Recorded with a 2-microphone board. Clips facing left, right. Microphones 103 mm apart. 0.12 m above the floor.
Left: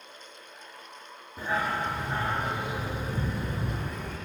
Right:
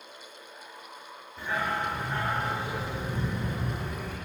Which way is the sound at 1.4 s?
40° left (ahead or behind).